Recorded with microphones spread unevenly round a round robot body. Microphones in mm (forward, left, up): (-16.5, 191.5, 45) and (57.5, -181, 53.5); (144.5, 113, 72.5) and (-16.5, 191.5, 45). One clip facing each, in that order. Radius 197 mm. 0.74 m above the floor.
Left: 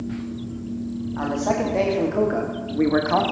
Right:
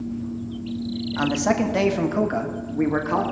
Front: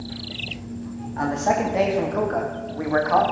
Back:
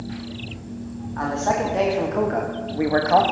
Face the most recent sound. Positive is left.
turn(degrees=180)